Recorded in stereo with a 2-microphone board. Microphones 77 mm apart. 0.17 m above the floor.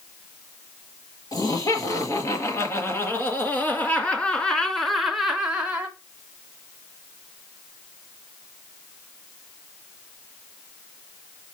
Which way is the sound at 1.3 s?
45° left (ahead or behind).